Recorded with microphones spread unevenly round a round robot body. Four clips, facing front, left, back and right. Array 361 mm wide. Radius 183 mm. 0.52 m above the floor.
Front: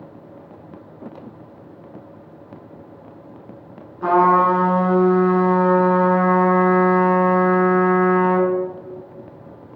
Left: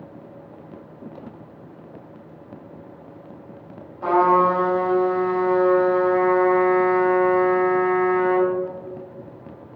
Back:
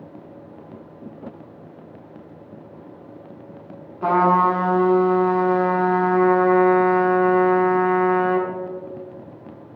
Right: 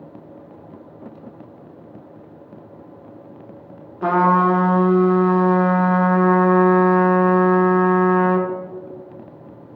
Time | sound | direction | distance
4.0 | a trumpet | 105° right | 0.6 m